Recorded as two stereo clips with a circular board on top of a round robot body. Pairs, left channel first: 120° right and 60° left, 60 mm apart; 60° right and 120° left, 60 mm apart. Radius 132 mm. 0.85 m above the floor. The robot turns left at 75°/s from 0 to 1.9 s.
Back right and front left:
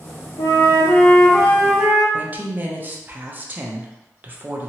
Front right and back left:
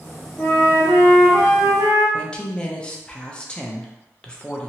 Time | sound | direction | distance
0.4 | a flute | 130° right | 0.6 m
2.1 | a woman speaking | 10° left | 0.9 m